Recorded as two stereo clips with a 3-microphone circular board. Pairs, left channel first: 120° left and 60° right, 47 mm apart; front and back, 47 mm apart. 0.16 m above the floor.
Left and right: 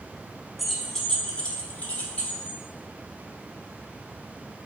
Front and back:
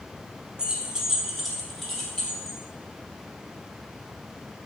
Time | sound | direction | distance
0.6 | keys jangling | 150° right | 0.7 m